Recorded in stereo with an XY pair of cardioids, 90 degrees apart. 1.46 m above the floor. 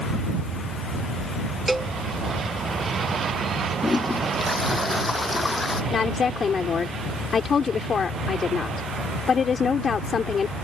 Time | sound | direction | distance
1.7 | a cowbell | 10° right | ?
3.8 | a toilet flushing | 30° left | ?
5.9 | a woman speaking | 50° left | ?